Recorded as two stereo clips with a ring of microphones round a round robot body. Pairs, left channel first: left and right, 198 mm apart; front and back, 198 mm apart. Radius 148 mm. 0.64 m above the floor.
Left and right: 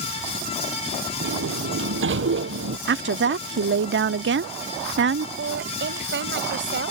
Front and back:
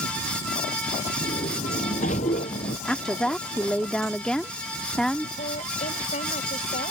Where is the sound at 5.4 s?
65° right.